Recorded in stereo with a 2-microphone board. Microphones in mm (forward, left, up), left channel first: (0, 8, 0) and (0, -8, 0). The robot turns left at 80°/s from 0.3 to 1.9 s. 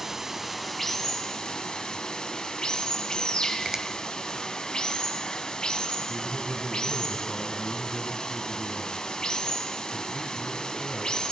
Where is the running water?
155° right, 1.2 m; by 11.3 s 75° left, 1.2 m.